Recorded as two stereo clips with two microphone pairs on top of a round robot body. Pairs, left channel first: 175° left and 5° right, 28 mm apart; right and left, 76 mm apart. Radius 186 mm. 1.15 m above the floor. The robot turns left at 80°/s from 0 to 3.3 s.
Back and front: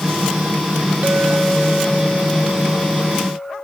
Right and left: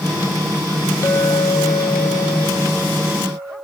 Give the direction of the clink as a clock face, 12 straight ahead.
1 o'clock.